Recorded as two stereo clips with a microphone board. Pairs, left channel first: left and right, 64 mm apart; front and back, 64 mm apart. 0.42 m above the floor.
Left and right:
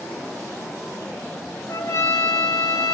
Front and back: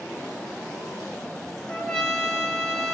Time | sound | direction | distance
1.7 | a trumpet | 70° left | 1.0 m